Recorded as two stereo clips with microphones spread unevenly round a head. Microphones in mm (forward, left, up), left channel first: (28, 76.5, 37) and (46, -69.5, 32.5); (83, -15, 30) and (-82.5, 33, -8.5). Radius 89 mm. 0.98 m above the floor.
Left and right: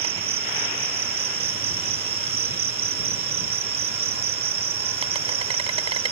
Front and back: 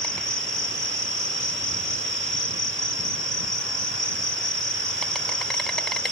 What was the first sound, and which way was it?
An insect, 75° right.